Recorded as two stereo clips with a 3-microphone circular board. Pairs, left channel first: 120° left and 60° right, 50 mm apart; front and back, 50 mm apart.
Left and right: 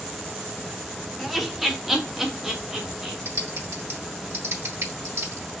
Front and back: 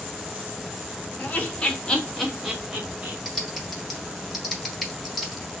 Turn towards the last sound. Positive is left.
turn(degrees=-90)